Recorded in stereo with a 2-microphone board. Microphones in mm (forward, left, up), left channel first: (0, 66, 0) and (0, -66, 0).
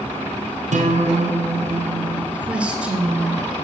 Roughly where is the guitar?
Right.